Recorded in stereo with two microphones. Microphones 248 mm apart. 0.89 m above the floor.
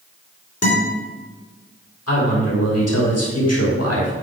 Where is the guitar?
70° left (ahead or behind), 3 m.